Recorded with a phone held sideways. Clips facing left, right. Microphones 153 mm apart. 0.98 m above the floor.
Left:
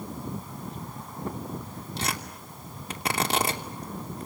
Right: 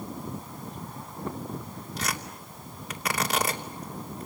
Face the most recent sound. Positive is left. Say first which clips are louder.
# left 1 dB
turn(degrees=30)  # may be behind; listen again after turning